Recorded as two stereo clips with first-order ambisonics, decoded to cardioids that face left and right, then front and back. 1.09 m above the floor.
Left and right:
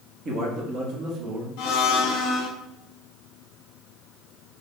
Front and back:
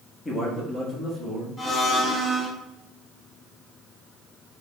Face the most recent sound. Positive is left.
turn(degrees=75)